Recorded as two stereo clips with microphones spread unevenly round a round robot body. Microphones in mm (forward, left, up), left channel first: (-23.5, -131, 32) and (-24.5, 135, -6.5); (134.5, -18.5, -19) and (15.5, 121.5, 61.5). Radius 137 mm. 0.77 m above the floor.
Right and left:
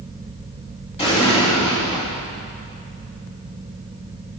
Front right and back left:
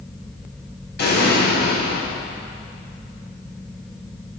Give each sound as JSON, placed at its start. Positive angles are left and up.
{"t": 1.0, "sound": "an explosion", "azimuth_deg": -20, "distance_m": 3.0}